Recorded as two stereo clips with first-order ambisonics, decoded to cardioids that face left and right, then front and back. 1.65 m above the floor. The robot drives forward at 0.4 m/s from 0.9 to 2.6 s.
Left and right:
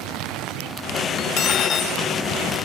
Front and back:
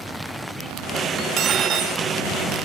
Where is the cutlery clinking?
130° left, 1.4 m; by 2.0 s 140° left, 1.6 m.